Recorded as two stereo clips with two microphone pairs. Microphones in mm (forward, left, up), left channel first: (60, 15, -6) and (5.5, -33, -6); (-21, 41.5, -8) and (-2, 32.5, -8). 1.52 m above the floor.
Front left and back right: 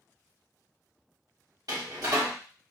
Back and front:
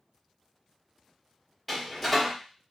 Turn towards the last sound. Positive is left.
turn(degrees=-125)